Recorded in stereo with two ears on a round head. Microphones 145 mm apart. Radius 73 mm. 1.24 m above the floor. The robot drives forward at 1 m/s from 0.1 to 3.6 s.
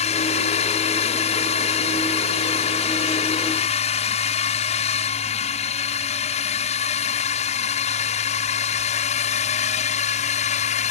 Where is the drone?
40° left (ahead or behind); by 10.9 s 45° left (ahead or behind).